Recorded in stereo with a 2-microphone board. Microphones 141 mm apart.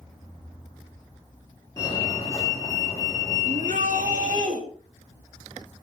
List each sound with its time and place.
1.8 s a fire alarm: 25° left (ahead or behind), 7.5 m
3.5 s a shout: 65° right (ahead or behind), 3.5 m